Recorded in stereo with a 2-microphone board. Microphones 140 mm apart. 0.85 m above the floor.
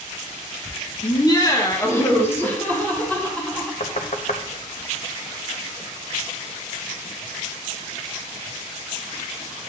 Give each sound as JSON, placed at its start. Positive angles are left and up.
{"t": 1.0, "sound": "laughter", "side_deg": 35, "distance_m": 1.3}
{"t": 3.8, "sound": "knocking", "side_deg": 55, "distance_m": 0.7}